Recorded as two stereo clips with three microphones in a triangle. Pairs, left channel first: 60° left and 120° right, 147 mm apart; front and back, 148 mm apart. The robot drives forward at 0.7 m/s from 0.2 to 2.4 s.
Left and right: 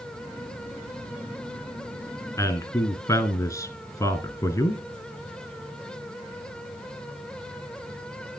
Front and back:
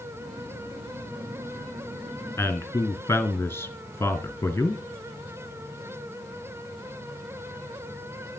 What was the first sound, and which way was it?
A man speaking, 40° left.